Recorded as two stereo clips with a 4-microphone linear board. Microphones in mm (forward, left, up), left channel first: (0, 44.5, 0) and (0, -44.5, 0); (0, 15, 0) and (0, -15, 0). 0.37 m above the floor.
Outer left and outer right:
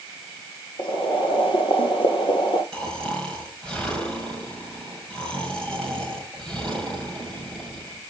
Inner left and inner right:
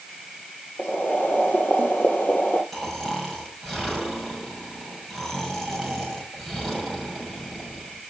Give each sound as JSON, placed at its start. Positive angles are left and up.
{"t": 0.8, "sound": "boiling", "side_deg": 70, "distance_m": 3.0}
{"t": 2.7, "sound": "snoring", "side_deg": 10, "distance_m": 7.0}